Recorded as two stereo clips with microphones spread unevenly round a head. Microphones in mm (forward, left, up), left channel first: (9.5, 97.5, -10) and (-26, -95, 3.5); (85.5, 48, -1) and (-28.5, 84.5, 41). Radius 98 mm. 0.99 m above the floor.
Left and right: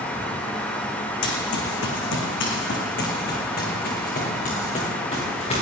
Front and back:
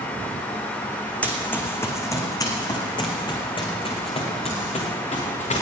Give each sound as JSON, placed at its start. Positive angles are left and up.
{"t": 1.2, "sound": "running footsteps", "azimuth_deg": 70, "distance_m": 3.0}